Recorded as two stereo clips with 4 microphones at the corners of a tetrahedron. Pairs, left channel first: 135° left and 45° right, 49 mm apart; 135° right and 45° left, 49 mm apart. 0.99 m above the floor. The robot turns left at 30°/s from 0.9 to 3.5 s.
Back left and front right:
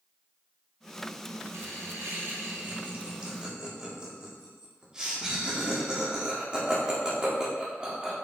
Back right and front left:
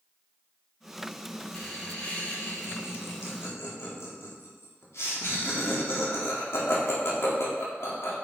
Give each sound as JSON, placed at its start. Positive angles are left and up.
{"t": 1.5, "sound": "laughter", "azimuth_deg": -60, "distance_m": 2.0}